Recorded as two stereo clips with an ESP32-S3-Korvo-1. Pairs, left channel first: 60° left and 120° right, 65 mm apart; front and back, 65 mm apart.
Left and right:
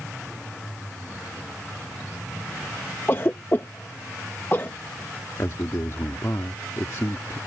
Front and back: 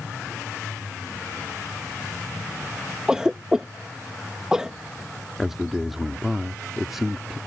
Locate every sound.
3.1 s a cough: 105° left
5.4 s a man speaking: 95° left